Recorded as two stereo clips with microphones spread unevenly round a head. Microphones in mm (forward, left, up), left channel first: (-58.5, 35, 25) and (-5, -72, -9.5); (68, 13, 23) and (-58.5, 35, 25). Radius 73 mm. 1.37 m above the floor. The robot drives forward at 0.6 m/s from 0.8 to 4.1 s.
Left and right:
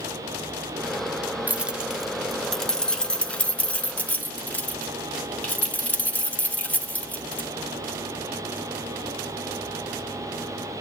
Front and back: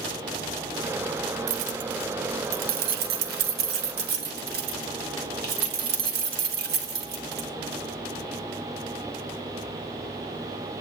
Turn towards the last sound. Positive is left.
turn(degrees=-170)